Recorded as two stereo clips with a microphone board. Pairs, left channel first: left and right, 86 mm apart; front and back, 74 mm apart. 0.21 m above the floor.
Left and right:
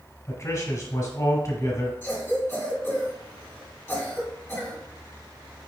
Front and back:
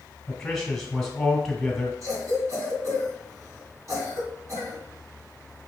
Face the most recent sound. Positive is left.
turn(degrees=155)